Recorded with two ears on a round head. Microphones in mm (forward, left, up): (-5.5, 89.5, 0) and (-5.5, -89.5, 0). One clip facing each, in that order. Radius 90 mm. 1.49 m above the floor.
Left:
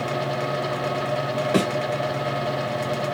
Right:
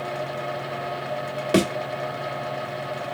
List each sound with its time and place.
1.5 s a thud: 35° right (ahead or behind), 1.4 m